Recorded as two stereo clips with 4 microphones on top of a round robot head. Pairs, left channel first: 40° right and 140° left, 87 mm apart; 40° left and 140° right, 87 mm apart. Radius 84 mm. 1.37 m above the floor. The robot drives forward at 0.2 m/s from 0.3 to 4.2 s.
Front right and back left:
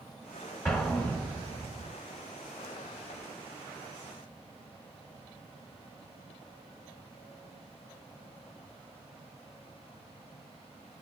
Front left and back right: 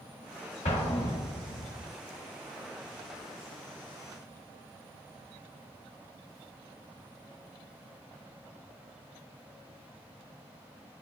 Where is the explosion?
25° left, 1.3 m; by 1.9 s 30° left, 1.1 m.